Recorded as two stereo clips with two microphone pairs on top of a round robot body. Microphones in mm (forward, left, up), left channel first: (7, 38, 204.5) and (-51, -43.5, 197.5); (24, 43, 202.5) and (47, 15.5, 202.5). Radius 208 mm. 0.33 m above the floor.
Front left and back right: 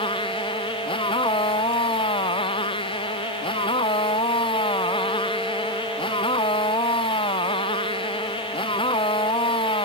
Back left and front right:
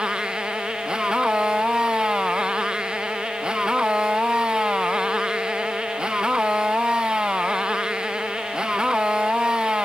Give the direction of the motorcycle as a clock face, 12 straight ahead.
11 o'clock.